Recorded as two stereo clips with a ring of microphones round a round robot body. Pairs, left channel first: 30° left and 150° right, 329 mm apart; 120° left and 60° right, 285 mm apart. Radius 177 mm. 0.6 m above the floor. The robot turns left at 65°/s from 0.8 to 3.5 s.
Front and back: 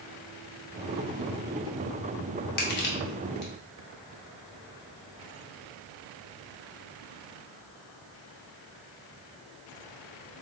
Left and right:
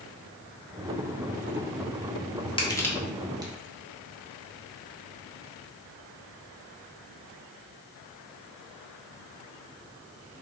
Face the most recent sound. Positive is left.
turn(degrees=0)